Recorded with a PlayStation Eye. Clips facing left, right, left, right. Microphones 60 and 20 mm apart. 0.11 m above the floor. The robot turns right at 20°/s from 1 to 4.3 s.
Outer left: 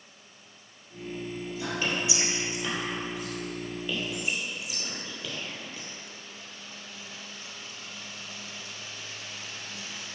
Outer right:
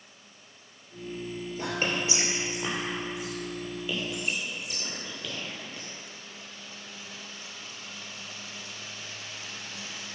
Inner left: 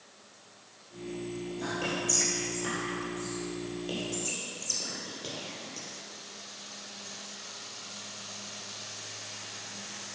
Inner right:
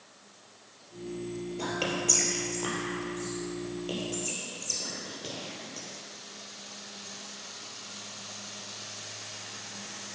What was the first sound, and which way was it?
Whispering, 45° right (ahead or behind).